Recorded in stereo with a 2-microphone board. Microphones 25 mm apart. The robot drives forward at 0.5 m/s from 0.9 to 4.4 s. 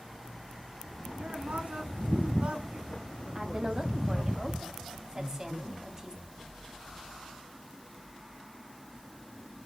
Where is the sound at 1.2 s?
70° right (ahead or behind), 4.5 m; by 4.3 s 60° right (ahead or behind), 5 m.